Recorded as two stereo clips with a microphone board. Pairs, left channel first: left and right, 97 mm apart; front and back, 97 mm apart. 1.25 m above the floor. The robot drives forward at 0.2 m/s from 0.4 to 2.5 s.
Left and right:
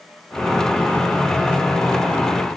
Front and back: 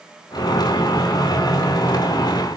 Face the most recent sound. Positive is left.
No sound to turn to.